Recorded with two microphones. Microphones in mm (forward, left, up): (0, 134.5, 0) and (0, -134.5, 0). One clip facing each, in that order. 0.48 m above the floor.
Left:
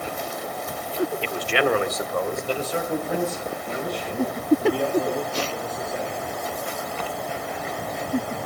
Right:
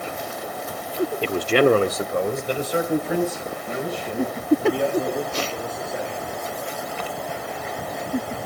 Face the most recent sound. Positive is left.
turn(degrees=0)  # may be behind; listen again after turning